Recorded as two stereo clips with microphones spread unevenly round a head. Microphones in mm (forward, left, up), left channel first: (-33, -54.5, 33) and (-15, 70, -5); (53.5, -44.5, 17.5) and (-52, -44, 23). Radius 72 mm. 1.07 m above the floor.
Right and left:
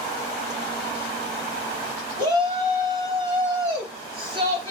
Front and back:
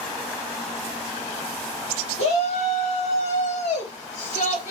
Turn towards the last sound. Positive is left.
turn(degrees=30)